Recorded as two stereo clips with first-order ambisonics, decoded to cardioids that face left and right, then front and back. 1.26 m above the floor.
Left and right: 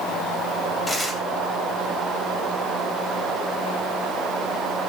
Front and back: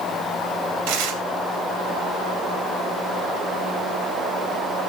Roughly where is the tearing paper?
Behind.